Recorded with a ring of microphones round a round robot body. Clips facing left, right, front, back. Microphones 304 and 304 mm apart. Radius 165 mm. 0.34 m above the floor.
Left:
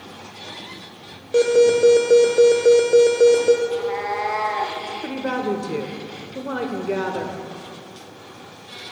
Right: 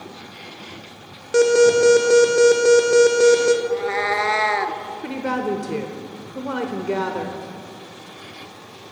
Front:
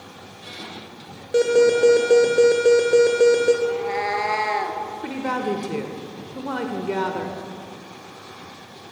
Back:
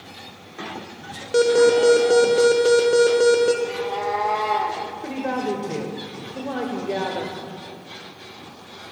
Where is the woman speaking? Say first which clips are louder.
Even, even; 10° right, 0.9 m.